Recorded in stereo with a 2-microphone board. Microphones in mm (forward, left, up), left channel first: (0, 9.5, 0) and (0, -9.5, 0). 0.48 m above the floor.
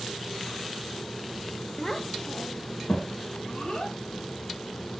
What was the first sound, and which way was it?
A child speaking, 20° left (ahead or behind).